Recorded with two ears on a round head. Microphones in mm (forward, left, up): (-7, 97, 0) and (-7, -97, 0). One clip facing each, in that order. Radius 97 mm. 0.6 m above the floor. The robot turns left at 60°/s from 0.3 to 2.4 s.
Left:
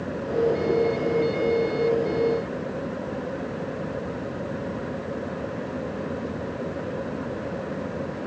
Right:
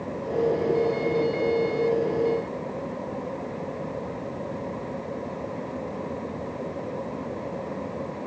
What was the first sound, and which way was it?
Only background noise.